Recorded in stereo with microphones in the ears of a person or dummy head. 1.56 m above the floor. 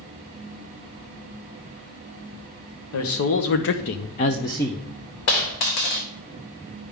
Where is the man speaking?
65° left (ahead or behind), 1.1 m; by 4.8 s 5° right (ahead or behind), 0.5 m.